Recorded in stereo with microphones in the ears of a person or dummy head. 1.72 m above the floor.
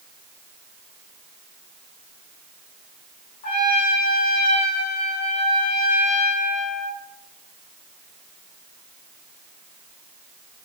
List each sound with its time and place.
3.4 s a trumpet: 50° left (ahead or behind), 5 m